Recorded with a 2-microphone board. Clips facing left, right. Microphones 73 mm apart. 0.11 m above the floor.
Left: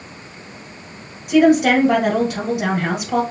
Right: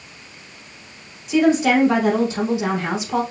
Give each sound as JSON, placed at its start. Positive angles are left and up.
{"t": 1.3, "sound": "a woman speaking", "side_deg": 55, "distance_m": 2.5}